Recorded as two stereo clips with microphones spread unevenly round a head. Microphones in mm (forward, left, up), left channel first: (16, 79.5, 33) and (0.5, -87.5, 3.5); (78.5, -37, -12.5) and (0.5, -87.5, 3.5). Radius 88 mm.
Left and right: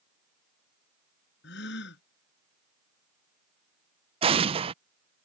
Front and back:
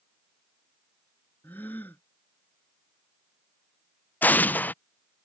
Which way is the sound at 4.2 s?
40° right.